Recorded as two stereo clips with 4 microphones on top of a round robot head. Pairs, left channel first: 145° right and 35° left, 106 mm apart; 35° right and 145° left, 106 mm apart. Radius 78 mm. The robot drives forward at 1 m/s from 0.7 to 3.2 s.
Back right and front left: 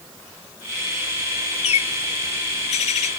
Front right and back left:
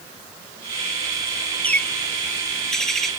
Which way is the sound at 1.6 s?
115° right.